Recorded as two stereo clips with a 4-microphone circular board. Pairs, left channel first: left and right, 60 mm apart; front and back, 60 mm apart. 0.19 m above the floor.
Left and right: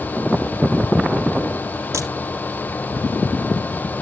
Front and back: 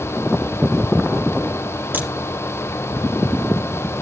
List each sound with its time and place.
1.9 s a crack: 120° right, 4.5 m